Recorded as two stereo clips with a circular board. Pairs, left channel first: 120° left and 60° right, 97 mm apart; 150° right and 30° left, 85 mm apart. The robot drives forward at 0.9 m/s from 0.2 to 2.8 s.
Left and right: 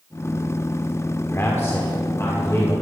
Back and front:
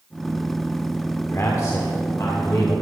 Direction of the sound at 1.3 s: 175° left.